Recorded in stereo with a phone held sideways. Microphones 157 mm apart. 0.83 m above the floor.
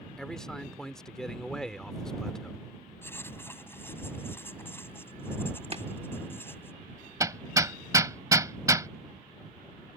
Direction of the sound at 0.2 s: 5° left (ahead or behind).